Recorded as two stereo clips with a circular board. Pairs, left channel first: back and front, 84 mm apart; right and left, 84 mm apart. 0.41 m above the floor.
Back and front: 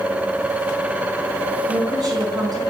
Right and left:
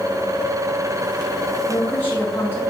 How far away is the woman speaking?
About 3.5 m.